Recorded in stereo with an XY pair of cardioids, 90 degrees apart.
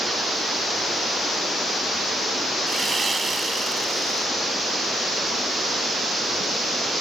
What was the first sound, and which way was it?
Sawing, 30° right.